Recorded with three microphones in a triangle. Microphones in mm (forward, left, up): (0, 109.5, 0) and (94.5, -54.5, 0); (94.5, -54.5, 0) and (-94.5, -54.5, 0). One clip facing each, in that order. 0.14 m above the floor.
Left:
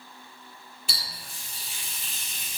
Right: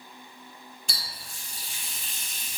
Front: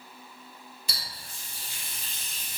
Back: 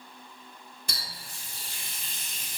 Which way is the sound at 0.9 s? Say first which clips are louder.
Left 3 dB, back 2 dB; 155° right.